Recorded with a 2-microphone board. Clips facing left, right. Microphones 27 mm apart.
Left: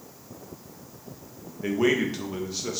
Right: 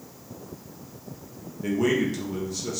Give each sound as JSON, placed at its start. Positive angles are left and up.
{"t": 1.6, "sound": "a man speaking", "side_deg": 25, "distance_m": 0.7}